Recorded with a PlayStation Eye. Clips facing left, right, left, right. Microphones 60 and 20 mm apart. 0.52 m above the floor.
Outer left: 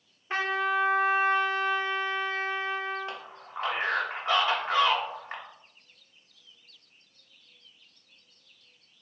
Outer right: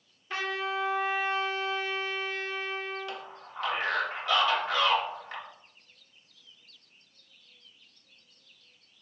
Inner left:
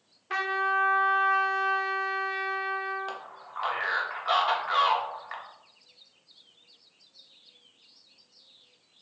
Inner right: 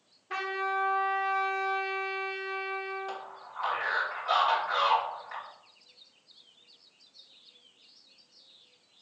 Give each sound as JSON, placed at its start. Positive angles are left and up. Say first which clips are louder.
{"t": 0.3, "sound": "a trumpet", "louder": "outer left 5 dB, inner left 4 dB", "side_deg": 35, "distance_m": 0.7}
{"t": 3.1, "sound": "a man speaking", "louder": "outer left 1 dB, inner left 1 dB", "side_deg": 35, "distance_m": 1.1}